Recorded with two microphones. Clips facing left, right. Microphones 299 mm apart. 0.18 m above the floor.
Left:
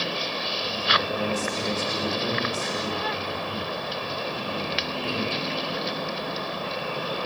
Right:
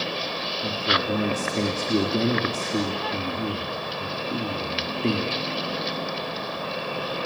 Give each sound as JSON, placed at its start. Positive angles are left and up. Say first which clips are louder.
{"t": 0.6, "sound": "a man speaking", "louder": "right 4 dB", "side_deg": -70, "distance_m": 4.0}